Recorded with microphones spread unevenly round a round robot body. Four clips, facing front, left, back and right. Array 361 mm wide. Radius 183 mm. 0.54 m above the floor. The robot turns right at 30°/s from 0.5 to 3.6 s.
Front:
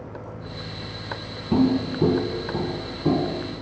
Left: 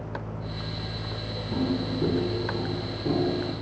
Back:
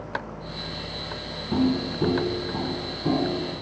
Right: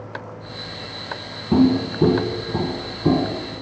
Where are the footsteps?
80° right, 1.3 m.